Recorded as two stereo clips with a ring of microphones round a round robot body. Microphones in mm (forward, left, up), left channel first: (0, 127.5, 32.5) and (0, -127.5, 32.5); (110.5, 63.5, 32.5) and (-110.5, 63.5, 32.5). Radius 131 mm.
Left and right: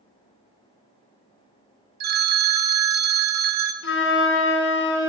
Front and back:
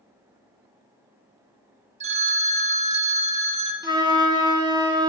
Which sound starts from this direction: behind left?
A flute, at 3.8 s.